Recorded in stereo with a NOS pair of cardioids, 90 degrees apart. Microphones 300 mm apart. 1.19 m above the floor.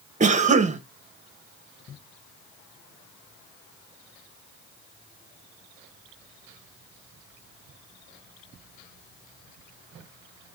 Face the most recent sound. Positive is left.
turn(degrees=-25)